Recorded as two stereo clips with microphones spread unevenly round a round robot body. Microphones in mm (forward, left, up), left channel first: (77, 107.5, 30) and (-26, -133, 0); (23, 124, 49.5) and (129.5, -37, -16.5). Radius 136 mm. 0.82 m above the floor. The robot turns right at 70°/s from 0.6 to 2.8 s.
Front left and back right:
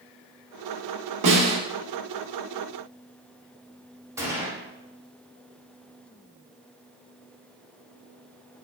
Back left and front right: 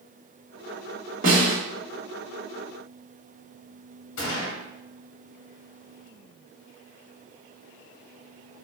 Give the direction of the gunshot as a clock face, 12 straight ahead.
6 o'clock.